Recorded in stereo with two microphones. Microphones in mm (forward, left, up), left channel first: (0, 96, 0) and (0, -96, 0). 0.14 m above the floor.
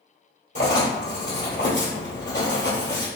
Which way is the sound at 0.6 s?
70° left (ahead or behind).